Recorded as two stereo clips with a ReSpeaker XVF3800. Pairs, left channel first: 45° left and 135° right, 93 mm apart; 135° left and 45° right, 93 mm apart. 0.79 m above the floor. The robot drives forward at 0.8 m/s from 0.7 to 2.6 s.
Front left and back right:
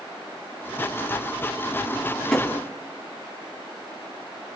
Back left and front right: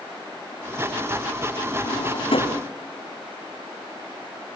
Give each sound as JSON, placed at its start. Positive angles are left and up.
{"t": 1.8, "sound": "a drawer", "azimuth_deg": 120, "distance_m": 3.0}